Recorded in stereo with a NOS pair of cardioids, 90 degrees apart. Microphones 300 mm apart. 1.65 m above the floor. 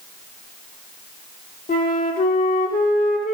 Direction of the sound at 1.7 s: 30° left.